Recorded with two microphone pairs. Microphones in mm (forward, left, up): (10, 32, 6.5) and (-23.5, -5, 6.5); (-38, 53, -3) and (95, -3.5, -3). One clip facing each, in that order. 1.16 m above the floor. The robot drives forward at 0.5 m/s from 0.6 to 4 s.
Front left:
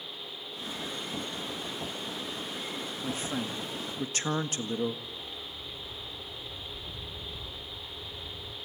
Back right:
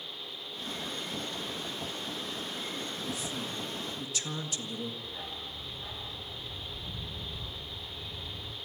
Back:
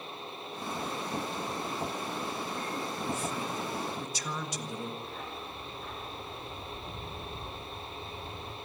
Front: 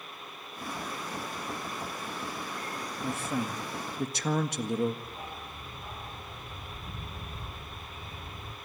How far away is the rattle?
I don't hear a rattle.